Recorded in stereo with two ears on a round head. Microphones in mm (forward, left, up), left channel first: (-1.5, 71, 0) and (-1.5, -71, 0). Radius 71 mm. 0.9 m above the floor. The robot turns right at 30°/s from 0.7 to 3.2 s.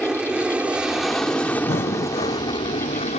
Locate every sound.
0.0 s an aircraft: 5° right (ahead or behind); by 3.2 s 40° left (ahead or behind)
1.7 s breathing: 45° left (ahead or behind)